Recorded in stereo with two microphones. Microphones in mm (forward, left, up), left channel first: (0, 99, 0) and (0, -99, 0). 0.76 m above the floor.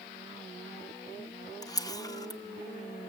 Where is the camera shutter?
20° left (ahead or behind), 0.6 m.